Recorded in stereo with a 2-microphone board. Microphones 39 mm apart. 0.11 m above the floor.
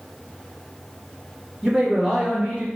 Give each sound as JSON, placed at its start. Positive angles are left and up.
{"t": 1.6, "sound": "a man speaking", "side_deg": -10, "distance_m": 1.5}